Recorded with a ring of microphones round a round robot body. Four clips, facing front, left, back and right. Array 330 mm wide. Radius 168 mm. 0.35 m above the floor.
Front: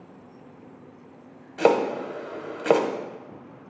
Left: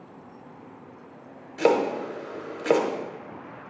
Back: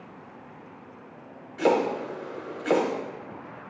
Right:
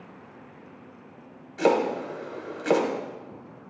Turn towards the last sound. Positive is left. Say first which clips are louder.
# left 1 dB, front 2 dB
turn(degrees=10)